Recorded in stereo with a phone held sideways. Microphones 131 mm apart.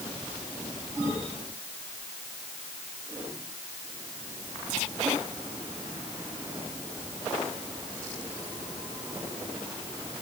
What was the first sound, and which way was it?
Only background noise.